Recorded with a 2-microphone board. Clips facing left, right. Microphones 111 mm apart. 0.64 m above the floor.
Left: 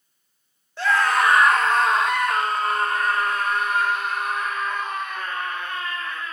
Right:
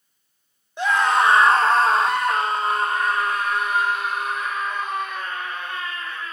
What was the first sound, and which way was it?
A scream, 15° right (ahead or behind).